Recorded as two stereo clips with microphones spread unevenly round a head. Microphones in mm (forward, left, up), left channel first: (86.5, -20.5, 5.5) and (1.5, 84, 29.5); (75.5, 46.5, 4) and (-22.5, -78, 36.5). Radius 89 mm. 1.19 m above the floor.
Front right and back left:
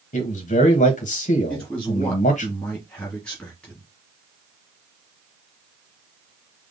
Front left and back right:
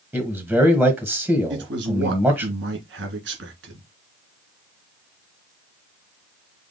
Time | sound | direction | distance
0.1 | a man speaking | 40° right | 1.3 m
1.5 | a man speaking | 135° right | 2.5 m